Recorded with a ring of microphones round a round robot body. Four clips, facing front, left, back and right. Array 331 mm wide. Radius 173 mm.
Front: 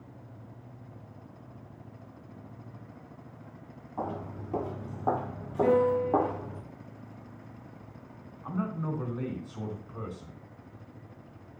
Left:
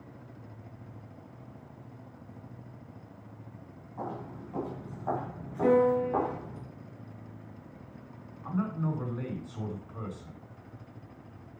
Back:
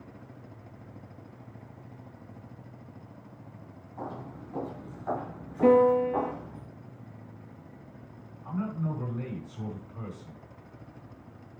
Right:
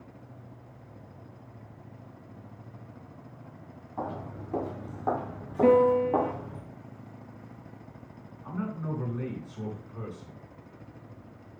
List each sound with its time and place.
4.0 s footsteps: 50° right, 4 m; by 6.6 s 20° right, 4 m
5.6 s a piano: 120° right, 3.5 m
8.4 s a man speaking: 30° left, 5 m